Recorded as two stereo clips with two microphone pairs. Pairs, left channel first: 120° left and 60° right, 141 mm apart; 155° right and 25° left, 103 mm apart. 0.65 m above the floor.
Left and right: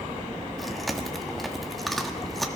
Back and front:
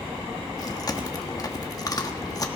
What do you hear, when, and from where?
0.6 s chewing: 155° right, 1.4 m